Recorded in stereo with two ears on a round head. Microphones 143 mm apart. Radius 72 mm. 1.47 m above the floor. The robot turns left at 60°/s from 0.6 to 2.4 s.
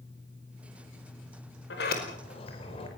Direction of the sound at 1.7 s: 75° left (ahead or behind).